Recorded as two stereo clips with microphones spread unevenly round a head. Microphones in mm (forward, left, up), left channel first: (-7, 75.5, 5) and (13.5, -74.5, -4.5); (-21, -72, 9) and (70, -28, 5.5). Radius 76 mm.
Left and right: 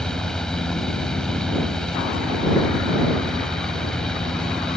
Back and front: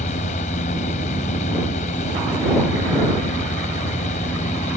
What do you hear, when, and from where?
0.0 s a fan: 175° right